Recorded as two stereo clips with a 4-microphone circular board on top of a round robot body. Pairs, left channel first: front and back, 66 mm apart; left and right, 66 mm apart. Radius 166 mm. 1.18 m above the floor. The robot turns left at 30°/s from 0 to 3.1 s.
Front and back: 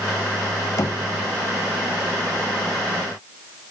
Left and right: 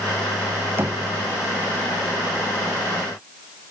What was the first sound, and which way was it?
Knocking, 35° right.